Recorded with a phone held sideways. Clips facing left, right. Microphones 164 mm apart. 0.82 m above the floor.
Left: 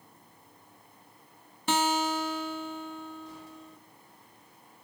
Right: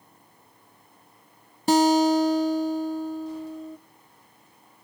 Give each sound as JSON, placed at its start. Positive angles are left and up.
{"t": 1.7, "sound": "a guitar", "side_deg": -35, "distance_m": 0.8}